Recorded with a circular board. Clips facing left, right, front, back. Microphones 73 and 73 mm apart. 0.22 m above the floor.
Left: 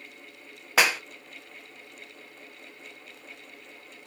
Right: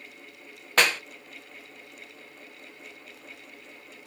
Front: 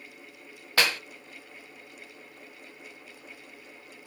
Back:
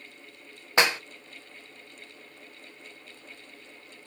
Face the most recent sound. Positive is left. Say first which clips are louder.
# even, back 3 dB
turn(degrees=160)